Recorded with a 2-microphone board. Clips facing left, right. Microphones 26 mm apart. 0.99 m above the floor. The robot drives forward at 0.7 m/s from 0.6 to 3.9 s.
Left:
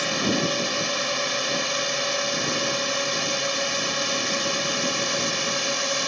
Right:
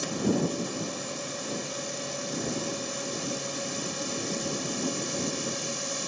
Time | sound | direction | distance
0.0 | a drone | 55° left (ahead or behind) | ?